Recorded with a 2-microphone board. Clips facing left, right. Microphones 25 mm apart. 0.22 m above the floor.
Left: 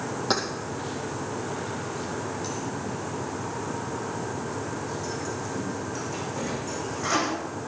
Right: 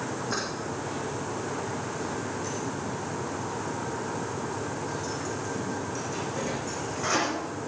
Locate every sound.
0.3 s keys jangling: 65° left (ahead or behind), 5.5 m; by 7.3 s 5° right (ahead or behind), 11 m